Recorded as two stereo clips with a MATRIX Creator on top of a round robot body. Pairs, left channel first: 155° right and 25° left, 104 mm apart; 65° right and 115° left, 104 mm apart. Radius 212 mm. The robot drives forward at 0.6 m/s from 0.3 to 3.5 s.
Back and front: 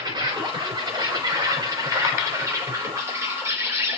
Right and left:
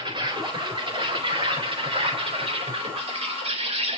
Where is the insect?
70° left, 6 m; by 4.0 s 90° left, 5.5 m.